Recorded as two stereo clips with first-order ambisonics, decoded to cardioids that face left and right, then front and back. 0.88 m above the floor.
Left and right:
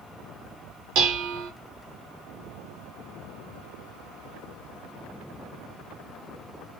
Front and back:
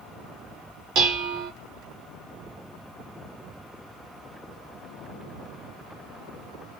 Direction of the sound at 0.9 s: 125° right.